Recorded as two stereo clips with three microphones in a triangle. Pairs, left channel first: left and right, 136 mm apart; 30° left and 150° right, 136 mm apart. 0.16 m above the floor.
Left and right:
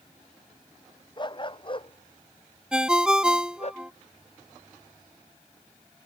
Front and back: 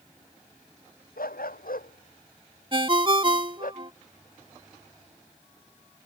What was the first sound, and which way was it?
A dog barking, 35° left.